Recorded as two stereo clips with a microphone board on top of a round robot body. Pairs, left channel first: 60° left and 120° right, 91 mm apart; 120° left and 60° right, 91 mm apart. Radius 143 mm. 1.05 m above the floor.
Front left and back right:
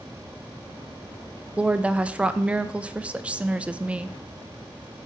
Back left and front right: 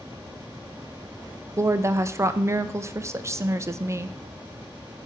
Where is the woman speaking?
55° right, 0.5 m.